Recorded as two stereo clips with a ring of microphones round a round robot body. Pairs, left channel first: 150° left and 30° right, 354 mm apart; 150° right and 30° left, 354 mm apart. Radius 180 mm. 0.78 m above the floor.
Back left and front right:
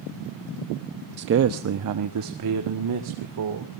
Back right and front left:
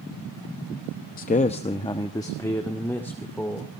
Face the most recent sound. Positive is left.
turn(degrees=-65)